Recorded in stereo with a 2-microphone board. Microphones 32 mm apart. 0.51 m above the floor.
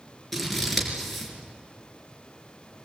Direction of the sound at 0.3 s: Centre (ahead or behind).